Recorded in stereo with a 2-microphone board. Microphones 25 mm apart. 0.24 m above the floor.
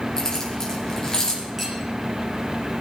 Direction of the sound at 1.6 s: 5° left (ahead or behind).